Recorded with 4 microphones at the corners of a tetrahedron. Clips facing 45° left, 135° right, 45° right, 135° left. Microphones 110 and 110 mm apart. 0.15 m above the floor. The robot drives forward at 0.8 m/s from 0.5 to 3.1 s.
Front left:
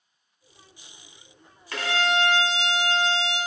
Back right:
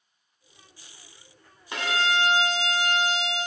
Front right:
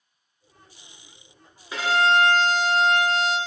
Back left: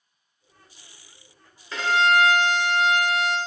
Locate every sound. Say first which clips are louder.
1.7 s a violin: front left 1 dB, even; 95° right, 0.7 m; by 3.4 s 165° right, 1.4 m